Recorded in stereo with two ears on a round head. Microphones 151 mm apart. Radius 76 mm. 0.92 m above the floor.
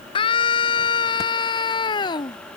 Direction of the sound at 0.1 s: 30° left (ahead or behind).